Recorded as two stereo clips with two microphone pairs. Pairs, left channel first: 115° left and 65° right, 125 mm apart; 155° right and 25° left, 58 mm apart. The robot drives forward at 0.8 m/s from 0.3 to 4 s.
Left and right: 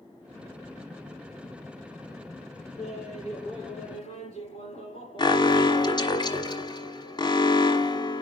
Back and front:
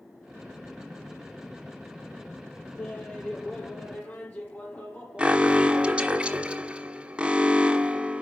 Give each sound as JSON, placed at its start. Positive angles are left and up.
{"t": 2.8, "sound": "laughter", "azimuth_deg": 140, "distance_m": 3.0}
{"t": 5.2, "sound": "an alarm", "azimuth_deg": 85, "distance_m": 1.2}